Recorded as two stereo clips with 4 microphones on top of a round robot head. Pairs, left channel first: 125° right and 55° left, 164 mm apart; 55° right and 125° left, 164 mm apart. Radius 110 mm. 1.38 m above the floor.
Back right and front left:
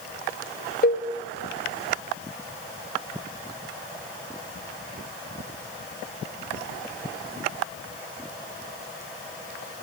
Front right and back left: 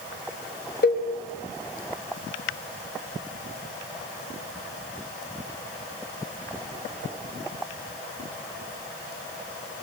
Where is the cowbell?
90° right, 3.5 m.